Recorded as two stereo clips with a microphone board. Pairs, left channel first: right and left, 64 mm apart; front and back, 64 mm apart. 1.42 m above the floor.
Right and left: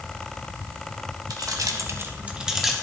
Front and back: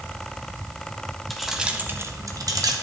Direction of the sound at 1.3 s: 90° left.